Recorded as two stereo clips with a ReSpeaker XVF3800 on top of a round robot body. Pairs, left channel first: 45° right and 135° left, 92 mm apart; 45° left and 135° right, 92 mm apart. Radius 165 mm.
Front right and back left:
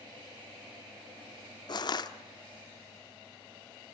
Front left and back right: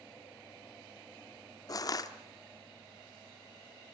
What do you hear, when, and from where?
1.7 s crushing: 5° right, 1.2 m